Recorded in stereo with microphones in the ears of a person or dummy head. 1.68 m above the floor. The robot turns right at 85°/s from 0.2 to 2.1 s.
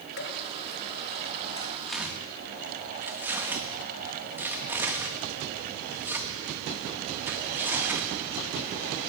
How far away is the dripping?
About 2.0 m.